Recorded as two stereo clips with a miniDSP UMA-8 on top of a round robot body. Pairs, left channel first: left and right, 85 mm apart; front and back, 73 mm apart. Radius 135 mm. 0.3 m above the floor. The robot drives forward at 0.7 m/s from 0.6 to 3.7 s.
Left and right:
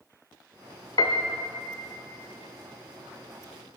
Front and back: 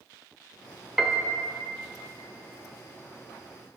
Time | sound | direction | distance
1.0 | a piano | 95° left | 0.8 m